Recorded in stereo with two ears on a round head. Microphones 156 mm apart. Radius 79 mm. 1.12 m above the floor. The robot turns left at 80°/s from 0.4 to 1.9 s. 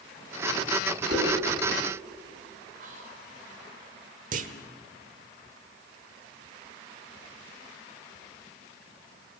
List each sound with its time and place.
1.1 s a whoosh: 45° right (ahead or behind), 5.5 m; by 1.3 s 30° right (ahead or behind), 5.5 m
2.8 s whispering: 45° right (ahead or behind), 5 m
4.3 s a clunk: 50° right (ahead or behind), 1.3 m